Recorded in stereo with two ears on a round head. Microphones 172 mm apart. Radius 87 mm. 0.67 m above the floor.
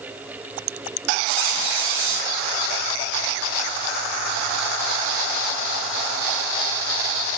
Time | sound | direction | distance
1.3 | a squeak | 75° right (ahead or behind) | 1.7 m